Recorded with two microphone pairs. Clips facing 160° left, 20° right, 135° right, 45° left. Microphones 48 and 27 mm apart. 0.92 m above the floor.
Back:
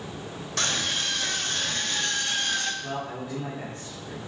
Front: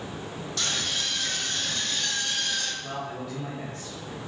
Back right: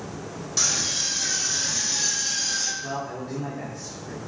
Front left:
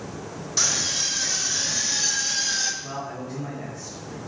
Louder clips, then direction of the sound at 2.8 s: Back 1 dB, back right 2 dB; 140° right.